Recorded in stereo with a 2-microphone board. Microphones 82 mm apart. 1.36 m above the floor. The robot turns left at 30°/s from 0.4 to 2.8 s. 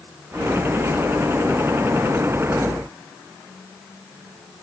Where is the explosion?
I don't hear an explosion.